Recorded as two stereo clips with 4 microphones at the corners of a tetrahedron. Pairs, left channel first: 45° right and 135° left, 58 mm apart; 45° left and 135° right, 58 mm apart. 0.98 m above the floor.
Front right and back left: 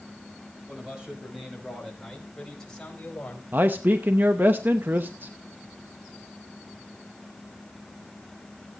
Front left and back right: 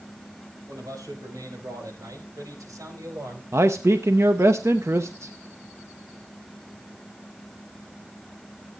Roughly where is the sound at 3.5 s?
Behind.